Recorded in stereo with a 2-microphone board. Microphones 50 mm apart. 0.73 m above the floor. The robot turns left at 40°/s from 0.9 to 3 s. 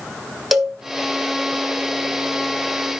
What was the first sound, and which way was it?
A cowbell, 5° right (ahead or behind).